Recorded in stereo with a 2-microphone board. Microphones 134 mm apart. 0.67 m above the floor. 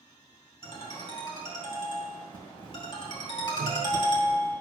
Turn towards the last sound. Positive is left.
turn(degrees=-80)